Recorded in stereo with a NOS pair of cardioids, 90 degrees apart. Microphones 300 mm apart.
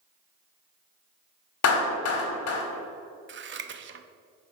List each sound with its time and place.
1.6 s a clap: 55° left, 2 m
3.3 s scissors: 40° right, 0.9 m